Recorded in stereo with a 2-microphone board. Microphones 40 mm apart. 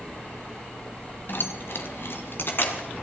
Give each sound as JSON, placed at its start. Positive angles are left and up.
{"t": 1.3, "sound": "keys jangling", "side_deg": 60, "distance_m": 1.4}